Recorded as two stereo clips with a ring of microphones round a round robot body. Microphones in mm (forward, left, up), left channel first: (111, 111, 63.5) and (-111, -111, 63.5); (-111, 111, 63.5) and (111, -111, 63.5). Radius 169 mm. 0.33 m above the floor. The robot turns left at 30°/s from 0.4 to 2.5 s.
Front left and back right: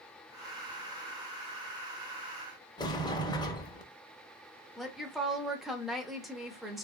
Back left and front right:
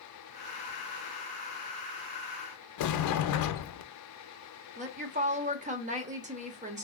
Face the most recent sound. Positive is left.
turn(degrees=-45)